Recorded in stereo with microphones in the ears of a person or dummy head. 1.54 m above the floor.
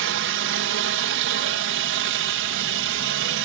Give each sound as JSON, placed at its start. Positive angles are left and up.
{"t": 0.0, "sound": "a helicopter", "side_deg": -60}